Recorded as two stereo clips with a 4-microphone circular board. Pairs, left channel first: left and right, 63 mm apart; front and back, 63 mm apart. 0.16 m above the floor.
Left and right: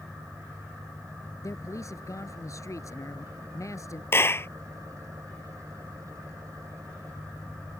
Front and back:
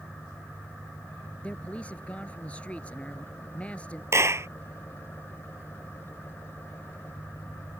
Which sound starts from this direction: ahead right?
An engine running, at 0.0 s.